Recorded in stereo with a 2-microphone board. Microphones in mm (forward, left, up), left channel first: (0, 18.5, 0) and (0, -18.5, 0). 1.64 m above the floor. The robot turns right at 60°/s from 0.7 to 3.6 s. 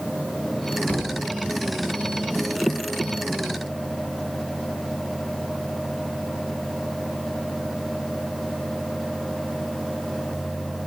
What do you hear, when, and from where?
0.9 s a thud: 40° left (ahead or behind), 5 m; by 1.3 s 20° left (ahead or behind), 5 m